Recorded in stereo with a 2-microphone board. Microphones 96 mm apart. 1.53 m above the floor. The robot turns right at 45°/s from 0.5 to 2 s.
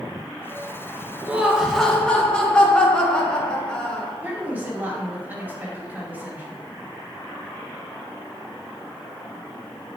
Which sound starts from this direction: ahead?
Laughter, at 1.3 s.